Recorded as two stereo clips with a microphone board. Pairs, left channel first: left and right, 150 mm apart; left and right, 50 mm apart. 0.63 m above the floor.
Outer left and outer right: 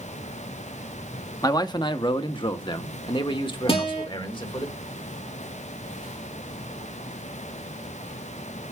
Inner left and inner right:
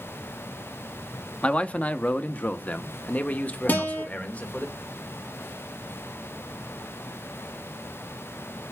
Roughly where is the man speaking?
Left.